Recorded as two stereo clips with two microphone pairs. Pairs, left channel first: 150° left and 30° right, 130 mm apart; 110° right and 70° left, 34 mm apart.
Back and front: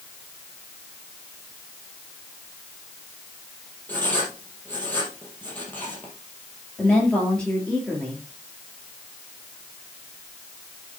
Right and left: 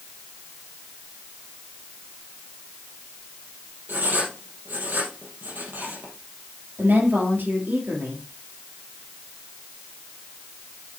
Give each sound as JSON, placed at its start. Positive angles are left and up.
{"t": 3.9, "sound": "writing", "azimuth_deg": 75, "distance_m": 4.0}
{"t": 6.8, "sound": "a woman speaking", "azimuth_deg": 70, "distance_m": 5.5}